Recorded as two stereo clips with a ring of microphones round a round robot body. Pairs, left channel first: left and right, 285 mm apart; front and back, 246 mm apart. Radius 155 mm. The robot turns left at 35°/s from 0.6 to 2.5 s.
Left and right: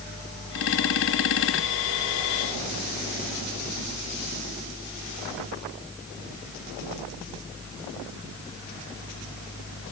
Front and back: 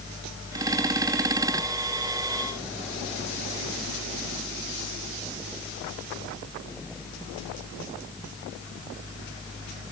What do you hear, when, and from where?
Only background noise.